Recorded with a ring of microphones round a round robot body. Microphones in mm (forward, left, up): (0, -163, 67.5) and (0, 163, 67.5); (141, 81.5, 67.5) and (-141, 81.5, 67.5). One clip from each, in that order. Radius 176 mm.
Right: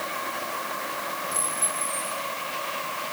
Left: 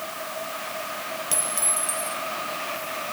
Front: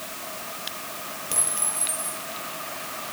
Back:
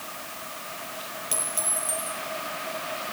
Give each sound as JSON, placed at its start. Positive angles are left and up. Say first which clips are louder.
{"t": 1.3, "sound": "a clink", "louder": "left 1 dB, even", "azimuth_deg": 120, "distance_m": 8.5}